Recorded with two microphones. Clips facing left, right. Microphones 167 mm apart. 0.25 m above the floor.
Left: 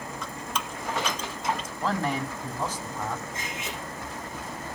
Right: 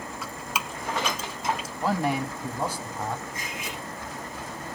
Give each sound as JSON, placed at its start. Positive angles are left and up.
{"t": 0.2, "sound": "dripping", "side_deg": -5, "distance_m": 1.2}
{"t": 1.8, "sound": "a man speaking", "side_deg": -10, "distance_m": 1.6}
{"t": 3.3, "sound": "cutlery clinking", "side_deg": 25, "distance_m": 6.0}